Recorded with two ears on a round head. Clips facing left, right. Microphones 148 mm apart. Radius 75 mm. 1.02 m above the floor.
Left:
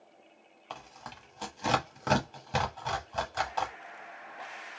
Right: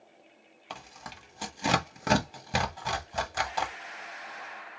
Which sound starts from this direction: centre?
Tearing paper, at 0.7 s.